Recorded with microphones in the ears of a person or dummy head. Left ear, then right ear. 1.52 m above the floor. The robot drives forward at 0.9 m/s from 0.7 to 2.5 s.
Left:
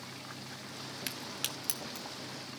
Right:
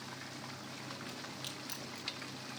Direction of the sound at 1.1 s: 60° left (ahead or behind).